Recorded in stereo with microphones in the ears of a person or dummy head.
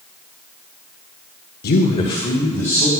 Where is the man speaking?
55° left (ahead or behind), 0.6 m; by 2.9 s 15° left (ahead or behind), 1.6 m.